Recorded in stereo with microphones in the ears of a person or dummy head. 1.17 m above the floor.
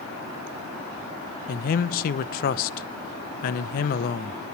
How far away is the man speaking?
About 0.6 m.